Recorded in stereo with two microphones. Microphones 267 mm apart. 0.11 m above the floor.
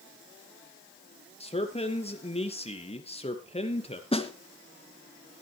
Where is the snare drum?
20° left (ahead or behind), 1.7 m.